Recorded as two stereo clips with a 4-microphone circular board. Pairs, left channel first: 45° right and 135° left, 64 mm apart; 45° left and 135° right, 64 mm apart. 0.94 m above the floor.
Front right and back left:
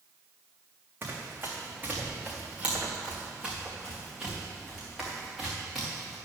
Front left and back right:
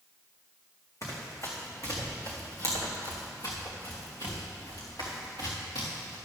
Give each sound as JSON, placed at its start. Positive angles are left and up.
{"t": 1.0, "sound": "running footsteps", "azimuth_deg": 85, "distance_m": 3.0}